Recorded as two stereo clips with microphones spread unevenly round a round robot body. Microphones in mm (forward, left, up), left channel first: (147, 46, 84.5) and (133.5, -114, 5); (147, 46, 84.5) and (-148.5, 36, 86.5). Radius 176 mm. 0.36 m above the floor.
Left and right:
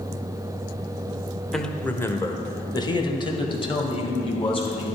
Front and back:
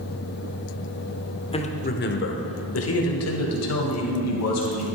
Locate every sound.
1.5 s a man speaking: 50° right, 1.3 m; by 4.8 s 20° left, 3.5 m